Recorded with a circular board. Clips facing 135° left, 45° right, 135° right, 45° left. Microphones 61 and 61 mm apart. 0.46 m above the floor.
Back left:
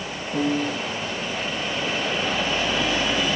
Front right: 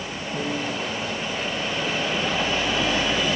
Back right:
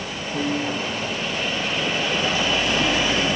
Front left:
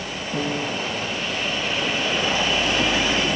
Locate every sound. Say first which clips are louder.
0.3 s a piano: back left 5 dB, back right 1 dB; 70° left, 5 m